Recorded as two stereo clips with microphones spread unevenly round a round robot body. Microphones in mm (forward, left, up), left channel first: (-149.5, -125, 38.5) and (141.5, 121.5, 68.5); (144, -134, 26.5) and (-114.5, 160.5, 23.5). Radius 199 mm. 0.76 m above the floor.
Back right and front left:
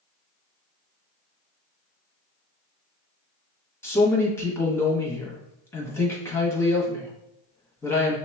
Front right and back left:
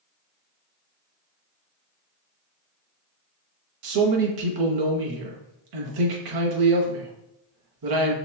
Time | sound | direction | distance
3.8 | a man speaking | 140° left | 1.0 m